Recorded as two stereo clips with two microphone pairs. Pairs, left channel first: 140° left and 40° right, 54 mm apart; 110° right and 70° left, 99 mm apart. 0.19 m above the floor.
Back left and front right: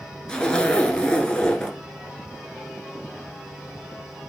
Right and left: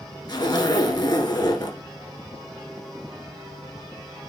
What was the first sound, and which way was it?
A zipper, 145° right.